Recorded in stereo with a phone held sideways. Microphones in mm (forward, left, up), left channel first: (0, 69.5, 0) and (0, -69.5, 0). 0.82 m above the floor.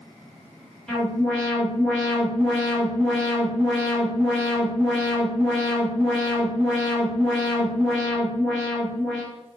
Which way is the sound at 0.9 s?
5° left (ahead or behind).